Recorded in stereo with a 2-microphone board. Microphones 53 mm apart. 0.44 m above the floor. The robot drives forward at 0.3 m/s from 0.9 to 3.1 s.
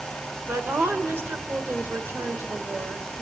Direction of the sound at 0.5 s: 45° right (ahead or behind).